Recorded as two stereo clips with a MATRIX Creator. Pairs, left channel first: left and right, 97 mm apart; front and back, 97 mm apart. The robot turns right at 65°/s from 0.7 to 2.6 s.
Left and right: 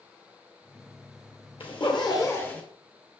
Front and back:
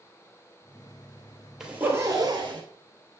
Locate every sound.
1.6 s a zipper: 100° left, 2 m; by 2.6 s 165° left, 2 m